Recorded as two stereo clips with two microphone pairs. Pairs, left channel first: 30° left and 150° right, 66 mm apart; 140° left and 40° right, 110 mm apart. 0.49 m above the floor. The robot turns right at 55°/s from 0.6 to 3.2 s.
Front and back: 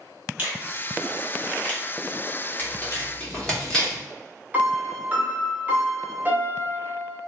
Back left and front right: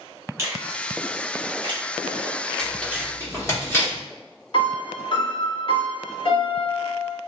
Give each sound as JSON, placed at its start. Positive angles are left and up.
{"t": 0.4, "sound": "a finger snap", "azimuth_deg": -100, "distance_m": 0.9}
{"t": 2.6, "sound": "tearing paper", "azimuth_deg": 60, "distance_m": 1.2}
{"t": 4.5, "sound": "a piano", "azimuth_deg": 155, "distance_m": 0.7}